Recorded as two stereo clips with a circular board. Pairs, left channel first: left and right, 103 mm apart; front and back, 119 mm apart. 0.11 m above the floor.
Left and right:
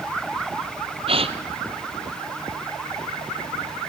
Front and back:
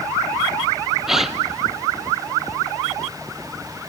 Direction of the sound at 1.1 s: 95° right.